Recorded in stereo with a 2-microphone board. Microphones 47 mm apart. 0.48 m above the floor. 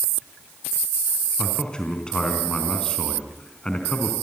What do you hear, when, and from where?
1.4 s a man speaking: 20° left (ahead or behind), 4 m